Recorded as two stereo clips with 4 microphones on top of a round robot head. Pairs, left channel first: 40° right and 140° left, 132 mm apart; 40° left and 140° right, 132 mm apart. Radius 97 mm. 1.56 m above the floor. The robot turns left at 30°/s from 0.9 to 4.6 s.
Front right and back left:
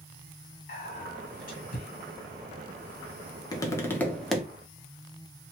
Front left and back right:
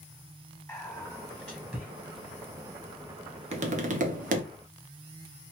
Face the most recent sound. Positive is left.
turn(degrees=-135)